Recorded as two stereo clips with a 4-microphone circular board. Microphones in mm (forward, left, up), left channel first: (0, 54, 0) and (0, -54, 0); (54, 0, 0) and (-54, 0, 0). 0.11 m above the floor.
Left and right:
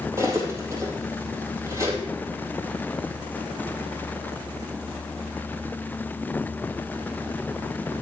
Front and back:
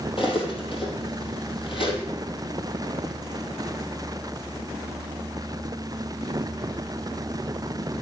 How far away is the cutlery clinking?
About 2.5 m.